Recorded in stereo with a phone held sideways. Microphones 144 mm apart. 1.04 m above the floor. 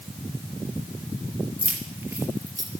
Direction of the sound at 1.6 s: 10° right (ahead or behind).